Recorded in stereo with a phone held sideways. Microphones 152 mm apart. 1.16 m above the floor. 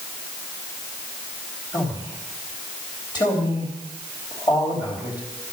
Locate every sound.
1.7 s a man speaking: 25° left (ahead or behind), 3.5 m